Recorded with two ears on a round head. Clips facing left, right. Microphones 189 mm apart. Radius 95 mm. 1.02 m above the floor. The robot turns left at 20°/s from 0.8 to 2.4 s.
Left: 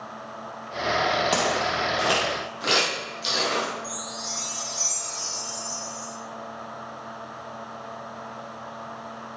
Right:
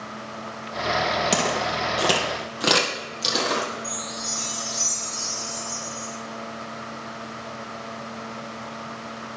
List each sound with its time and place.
1.3 s footsteps: 30° right (ahead or behind), 1.9 m; by 3.7 s 65° right (ahead or behind), 2.5 m
3.8 s a chime: 5° right (ahead or behind), 2 m